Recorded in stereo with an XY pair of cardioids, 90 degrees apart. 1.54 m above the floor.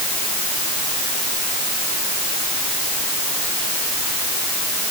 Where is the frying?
No frying in this recording.